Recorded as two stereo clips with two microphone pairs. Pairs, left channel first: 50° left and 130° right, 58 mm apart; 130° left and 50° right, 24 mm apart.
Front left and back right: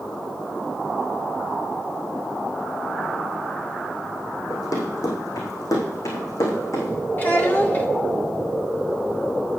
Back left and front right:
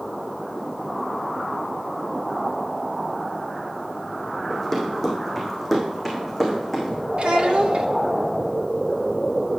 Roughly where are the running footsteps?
Ahead left.